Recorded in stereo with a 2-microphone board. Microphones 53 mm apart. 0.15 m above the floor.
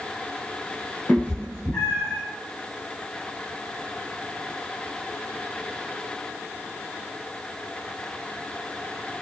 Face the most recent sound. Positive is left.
turn(degrees=15)  # may be behind; listen again after turning